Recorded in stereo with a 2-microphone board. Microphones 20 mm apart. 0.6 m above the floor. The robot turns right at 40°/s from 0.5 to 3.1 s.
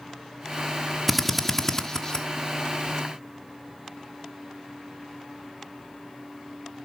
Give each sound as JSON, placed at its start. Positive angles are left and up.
{"t": 1.1, "sound": "a drill", "side_deg": -5, "distance_m": 1.2}